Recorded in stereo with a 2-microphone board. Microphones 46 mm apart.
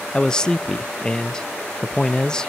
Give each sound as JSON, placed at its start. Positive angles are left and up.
{"t": 0.1, "sound": "a man speaking", "side_deg": 15, "distance_m": 0.5}